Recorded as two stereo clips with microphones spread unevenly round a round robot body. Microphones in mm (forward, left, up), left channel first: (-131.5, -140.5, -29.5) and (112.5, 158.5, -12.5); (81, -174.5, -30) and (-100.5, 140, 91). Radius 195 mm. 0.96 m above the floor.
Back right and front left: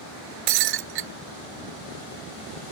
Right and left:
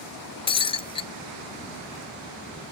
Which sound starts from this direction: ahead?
Breaking glass, at 0.5 s.